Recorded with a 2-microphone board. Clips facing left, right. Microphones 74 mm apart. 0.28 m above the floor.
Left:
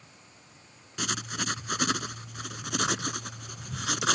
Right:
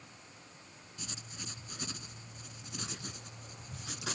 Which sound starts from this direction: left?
Writing, at 1.0 s.